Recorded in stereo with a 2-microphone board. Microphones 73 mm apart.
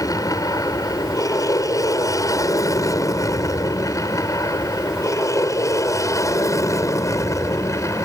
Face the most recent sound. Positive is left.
turn(degrees=40)  # may be behind; listen again after turning